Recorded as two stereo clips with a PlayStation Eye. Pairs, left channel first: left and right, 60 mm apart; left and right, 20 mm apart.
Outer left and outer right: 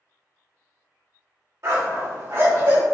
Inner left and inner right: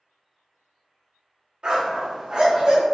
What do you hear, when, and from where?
1.6 s a dog barking: 55° right (ahead or behind), 1.5 m; by 2.8 s 50° right (ahead or behind), 2.0 m